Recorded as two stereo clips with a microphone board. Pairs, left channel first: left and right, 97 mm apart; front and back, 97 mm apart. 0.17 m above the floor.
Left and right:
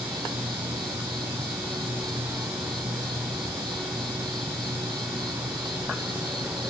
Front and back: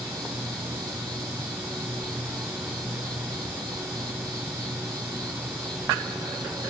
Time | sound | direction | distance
0.0 | an insect | 130° right | 1.7 m